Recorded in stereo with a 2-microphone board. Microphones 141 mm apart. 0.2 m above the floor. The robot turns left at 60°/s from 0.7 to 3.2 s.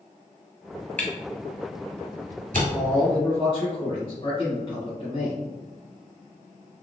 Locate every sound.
1.0 s a camera shutter: 15° left (ahead or behind), 1.4 m; by 2.6 s 75° right (ahead or behind), 1.4 m
2.7 s a man speaking: 20° left (ahead or behind), 1.7 m; by 5.4 s 40° left (ahead or behind), 1.7 m